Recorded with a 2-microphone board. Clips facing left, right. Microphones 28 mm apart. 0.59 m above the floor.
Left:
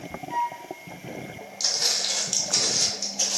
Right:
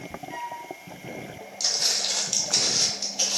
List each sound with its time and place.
0.3 s a flute: centre (ahead or behind), 1.3 m
1.6 s footsteps: 15° left (ahead or behind), 0.9 m; by 3.4 s 40° right (ahead or behind), 0.7 m